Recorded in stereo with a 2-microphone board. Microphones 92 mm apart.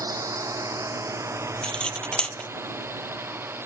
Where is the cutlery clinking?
10° left (ahead or behind).